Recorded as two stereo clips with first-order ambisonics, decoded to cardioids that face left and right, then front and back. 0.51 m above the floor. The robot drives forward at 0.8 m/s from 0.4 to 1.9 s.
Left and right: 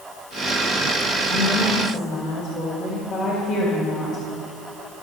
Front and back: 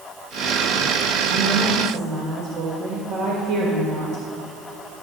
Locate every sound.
1.3 s a woman speaking: 165° left, 1.4 m; by 4.2 s 170° left, 1.8 m